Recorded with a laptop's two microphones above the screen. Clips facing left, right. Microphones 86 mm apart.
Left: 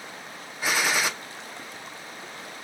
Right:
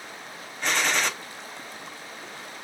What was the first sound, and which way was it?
A gunshot, 5° left (ahead or behind).